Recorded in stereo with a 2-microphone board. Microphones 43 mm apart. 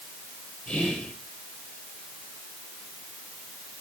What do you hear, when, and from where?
0.7 s whispering: 30° left (ahead or behind), 4.5 m